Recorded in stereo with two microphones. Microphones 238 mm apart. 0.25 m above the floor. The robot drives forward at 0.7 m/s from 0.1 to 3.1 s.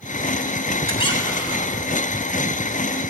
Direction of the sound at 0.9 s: 25° left (ahead or behind).